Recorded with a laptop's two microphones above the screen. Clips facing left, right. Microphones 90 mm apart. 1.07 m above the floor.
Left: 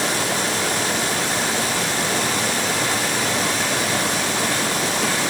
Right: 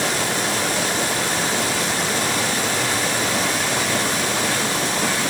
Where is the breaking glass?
I don't hear breaking glass.